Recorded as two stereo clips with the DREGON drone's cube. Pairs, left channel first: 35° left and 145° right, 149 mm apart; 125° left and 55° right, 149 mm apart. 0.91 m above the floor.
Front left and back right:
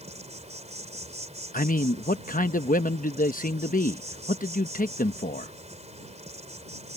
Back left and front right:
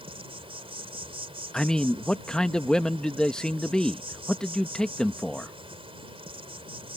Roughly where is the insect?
Right.